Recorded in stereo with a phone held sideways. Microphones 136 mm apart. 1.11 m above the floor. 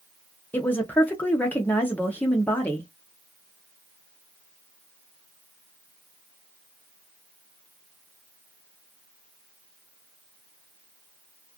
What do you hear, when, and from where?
0.5 s a woman speaking: 10° left (ahead or behind), 0.7 m